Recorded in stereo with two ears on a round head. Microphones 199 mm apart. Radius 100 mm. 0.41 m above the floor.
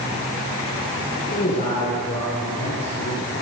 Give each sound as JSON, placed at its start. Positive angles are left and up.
{"t": 1.3, "sound": "a man speaking", "side_deg": 35, "distance_m": 7.5}